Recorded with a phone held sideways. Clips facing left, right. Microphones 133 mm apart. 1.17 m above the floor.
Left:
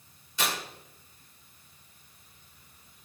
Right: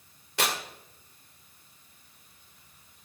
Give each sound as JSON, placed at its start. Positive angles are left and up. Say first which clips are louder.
{"t": 0.4, "sound": "tearing paper", "louder": "right 2 dB", "side_deg": -70, "distance_m": 2.0}